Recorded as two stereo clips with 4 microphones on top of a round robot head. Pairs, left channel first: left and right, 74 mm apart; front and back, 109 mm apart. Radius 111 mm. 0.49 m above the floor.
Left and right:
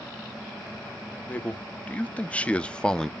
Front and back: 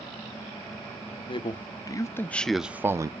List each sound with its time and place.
1.3 s a man speaking: 20° left, 1.1 m; by 3.1 s 165° left, 0.8 m